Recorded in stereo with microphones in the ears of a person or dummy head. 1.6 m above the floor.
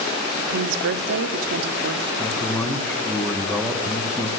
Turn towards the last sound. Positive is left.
turn(degrees=10)  # may be behind; listen again after turning